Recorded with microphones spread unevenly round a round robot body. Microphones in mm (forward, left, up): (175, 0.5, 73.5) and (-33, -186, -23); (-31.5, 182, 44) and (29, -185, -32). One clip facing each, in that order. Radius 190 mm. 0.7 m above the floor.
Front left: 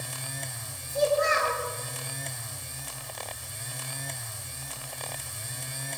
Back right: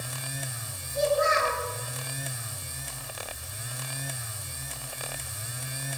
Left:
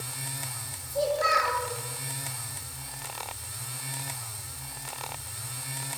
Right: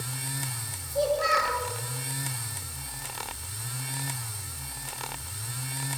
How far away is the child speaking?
About 9 m.